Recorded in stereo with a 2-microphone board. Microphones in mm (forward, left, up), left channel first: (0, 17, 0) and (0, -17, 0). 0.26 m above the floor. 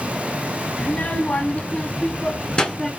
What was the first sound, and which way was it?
A child speaking, 50° left (ahead or behind).